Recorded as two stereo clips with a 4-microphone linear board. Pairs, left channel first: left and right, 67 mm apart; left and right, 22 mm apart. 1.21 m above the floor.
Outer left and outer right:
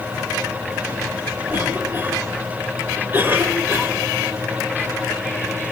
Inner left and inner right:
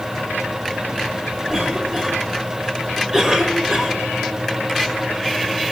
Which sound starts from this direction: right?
A cough, at 1.5 s.